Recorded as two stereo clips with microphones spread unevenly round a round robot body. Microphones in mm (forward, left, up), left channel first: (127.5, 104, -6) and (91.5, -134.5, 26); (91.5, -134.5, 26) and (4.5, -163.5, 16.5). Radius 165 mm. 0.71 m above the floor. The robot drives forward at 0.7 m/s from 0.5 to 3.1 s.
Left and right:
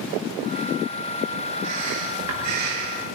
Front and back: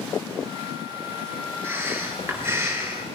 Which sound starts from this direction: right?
Breathing, at 1.6 s.